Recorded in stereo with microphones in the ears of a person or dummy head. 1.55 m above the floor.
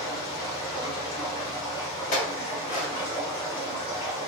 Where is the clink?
40° left (ahead or behind), 1.3 m.